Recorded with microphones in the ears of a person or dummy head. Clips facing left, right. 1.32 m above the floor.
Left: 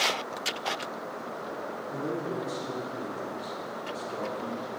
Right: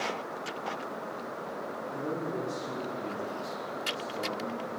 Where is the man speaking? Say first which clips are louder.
Left 2 dB; 45° left (ahead or behind), 4 m.